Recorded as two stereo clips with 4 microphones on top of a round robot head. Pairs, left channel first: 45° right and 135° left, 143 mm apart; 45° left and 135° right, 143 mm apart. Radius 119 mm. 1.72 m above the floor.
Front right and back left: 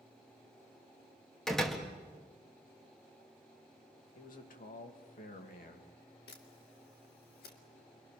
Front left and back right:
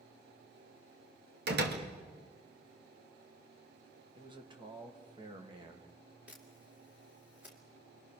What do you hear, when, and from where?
1.5 s a door slam: 135° right, 1.8 m
4.2 s a man speaking: 75° right, 2.5 m
6.3 s a camera shutter: 50° right, 1.9 m